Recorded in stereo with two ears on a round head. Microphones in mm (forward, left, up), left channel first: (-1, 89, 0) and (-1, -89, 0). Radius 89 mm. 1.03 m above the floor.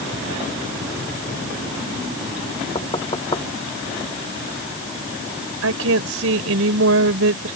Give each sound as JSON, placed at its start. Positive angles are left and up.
{"t": 2.8, "sound": "knocking", "side_deg": 25}
{"t": 5.6, "sound": "a woman speaking", "side_deg": -80}